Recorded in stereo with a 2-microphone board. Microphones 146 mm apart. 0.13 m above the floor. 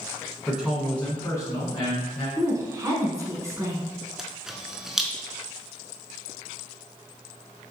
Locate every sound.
0.5 s a man speaking: 10° right (ahead or behind), 1.2 m; by 2.3 s 40° left (ahead or behind), 1.5 m
2.4 s a woman speaking: 20° right (ahead or behind), 1.1 m
4.2 s a camera shutter: 5° right (ahead or behind), 0.5 m